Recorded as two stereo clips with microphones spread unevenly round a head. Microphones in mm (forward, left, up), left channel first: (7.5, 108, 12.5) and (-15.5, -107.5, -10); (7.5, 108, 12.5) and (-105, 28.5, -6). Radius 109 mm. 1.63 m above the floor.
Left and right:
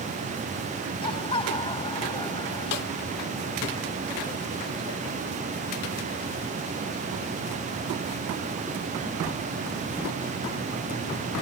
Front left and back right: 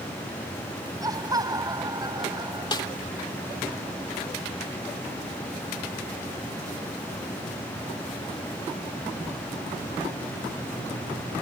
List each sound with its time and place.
1.0 s laughter: 150° left; by 2.9 s 155° left
2.7 s a snare drum: 90° left